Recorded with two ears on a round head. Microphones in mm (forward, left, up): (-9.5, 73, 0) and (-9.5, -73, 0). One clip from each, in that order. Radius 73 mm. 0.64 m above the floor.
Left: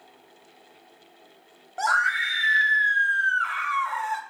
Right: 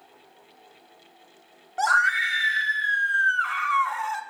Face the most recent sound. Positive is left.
turn(degrees=-10)  # may be behind; listen again after turning